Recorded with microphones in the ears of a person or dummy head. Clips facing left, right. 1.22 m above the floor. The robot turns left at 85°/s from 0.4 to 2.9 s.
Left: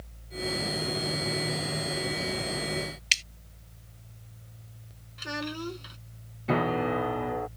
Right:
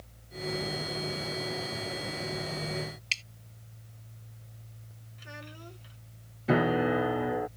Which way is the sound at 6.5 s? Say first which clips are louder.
Right 1 dB; 10° right (ahead or behind).